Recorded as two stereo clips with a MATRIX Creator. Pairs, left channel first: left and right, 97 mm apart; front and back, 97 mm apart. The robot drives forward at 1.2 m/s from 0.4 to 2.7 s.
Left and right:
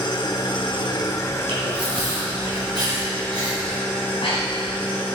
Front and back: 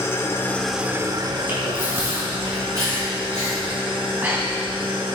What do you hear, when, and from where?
0.0 s an engine running: 60° left, 0.8 m; by 5.2 s 165° left, 2.5 m
1.5 s chewing: 110° right, 3 m; by 3.8 s 130° right, 4 m
4.0 s breathing: 110° left, 2.5 m